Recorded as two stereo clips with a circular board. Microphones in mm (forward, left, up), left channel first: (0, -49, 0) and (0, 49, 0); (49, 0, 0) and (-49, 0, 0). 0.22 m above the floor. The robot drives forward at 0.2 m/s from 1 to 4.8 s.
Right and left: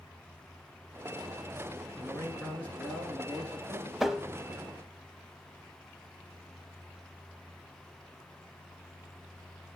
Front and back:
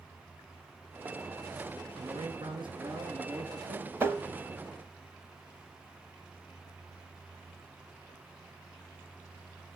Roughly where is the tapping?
Behind.